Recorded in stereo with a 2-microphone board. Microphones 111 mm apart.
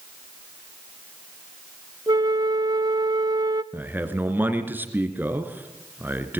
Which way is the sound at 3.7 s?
15° right (ahead or behind).